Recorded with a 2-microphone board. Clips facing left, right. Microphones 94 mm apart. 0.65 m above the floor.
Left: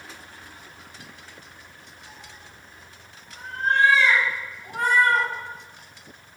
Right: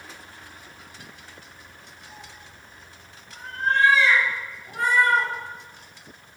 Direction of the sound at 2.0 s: 35° right (ahead or behind).